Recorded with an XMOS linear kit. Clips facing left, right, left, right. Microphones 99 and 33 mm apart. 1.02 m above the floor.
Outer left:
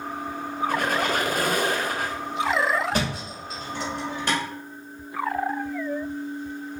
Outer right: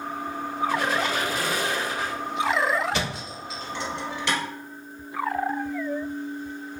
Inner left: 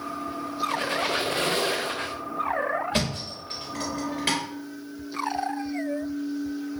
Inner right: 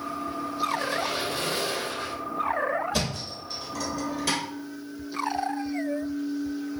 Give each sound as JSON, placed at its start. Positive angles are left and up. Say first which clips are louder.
{"t": 0.7, "sound": "a squeak", "louder": "outer left 2 dB, inner left 1 dB", "side_deg": 55, "distance_m": 0.5}
{"t": 2.9, "sound": "a thud", "louder": "outer left 2 dB, inner left 2 dB", "side_deg": 45, "distance_m": 1.9}